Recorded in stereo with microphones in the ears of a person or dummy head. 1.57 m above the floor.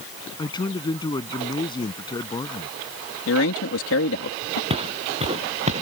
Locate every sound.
0.4 s a man speaking: 25° left (ahead or behind)
3.3 s a man speaking: 80° left
4.7 s footsteps: 30° right (ahead or behind); by 5.8 s 35° right (ahead or behind)